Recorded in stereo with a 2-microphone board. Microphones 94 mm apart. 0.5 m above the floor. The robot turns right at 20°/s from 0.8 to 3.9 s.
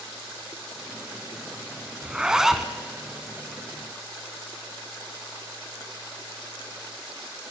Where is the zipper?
15° right (ahead or behind), 0.8 m; by 2.7 s centre (ahead or behind), 0.8 m.